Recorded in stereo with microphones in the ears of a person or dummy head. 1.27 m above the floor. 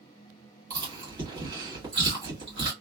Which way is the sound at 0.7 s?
20° right (ahead or behind).